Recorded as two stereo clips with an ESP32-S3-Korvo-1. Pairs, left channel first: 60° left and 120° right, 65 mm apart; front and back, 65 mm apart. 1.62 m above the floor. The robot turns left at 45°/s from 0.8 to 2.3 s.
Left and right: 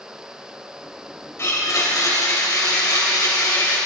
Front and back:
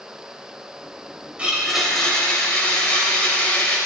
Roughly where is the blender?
Left.